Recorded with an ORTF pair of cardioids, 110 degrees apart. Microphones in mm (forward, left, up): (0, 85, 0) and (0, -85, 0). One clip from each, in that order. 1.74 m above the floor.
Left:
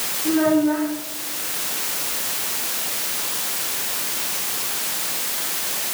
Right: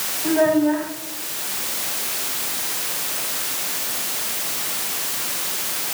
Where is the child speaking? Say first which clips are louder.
Right 1 dB; 50° right, 8 m.